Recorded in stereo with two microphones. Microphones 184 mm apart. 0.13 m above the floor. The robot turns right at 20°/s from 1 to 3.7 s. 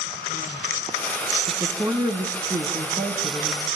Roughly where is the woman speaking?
Right.